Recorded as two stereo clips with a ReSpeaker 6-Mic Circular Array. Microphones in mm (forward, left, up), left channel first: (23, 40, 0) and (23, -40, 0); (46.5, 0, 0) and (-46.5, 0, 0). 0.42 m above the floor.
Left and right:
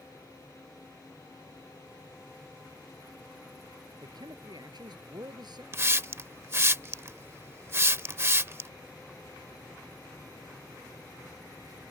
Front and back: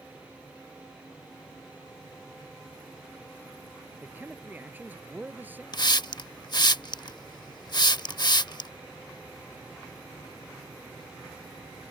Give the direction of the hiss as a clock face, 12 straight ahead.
1 o'clock.